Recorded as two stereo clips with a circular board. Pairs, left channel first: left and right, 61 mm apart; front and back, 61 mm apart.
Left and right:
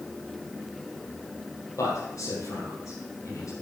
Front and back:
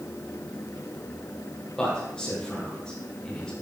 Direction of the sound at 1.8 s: 75° left.